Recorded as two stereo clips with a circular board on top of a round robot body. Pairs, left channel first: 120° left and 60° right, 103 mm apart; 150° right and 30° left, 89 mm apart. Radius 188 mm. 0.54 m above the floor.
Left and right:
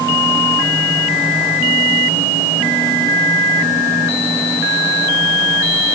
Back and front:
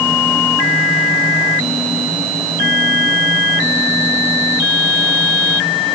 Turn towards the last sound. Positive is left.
No sound to turn to.